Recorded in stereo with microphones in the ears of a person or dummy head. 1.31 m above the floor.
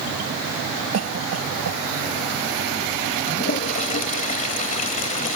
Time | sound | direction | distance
0.9 | a cough | 90° right | ?
3.3 | a toilet flushing | 45° left (ahead or behind) | ?